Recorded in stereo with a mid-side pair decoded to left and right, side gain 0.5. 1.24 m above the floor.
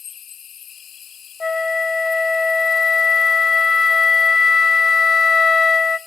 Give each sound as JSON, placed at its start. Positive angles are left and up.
{"t": 0.0, "sound": "an insect", "azimuth_deg": 50, "distance_m": 0.7}
{"t": 1.4, "sound": "a flute", "azimuth_deg": 20, "distance_m": 0.9}